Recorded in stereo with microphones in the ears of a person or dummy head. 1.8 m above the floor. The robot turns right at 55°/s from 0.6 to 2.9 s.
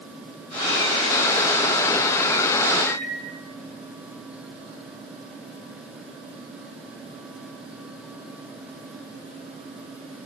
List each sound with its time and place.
2.9 s a microwave: 15° left (ahead or behind), 3.5 m